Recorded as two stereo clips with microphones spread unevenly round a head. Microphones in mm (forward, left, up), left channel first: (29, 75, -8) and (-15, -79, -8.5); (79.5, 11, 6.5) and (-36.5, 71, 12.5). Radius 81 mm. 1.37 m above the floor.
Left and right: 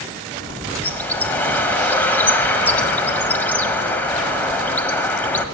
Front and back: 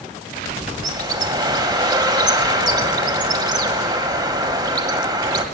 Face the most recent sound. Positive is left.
turn(degrees=145)